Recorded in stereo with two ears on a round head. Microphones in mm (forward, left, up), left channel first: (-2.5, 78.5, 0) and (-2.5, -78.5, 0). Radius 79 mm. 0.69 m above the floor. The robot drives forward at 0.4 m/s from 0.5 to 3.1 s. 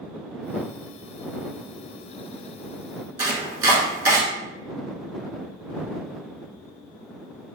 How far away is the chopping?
About 0.9 m.